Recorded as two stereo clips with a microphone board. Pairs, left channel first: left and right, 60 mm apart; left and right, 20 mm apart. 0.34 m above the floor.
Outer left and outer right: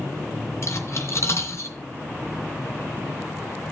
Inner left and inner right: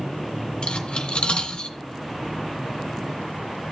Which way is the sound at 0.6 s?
50° left (ahead or behind).